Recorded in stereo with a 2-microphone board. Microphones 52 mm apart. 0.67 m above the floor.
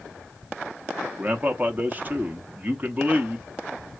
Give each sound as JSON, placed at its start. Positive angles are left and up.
{"t": 1.2, "sound": "a man speaking", "side_deg": -30, "distance_m": 0.8}